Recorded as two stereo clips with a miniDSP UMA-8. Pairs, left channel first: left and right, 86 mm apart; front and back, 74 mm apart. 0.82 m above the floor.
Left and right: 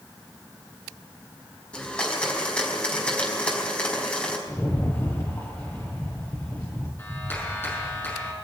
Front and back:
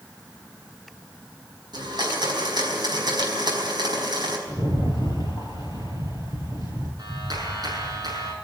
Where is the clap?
155° left, 6.5 m.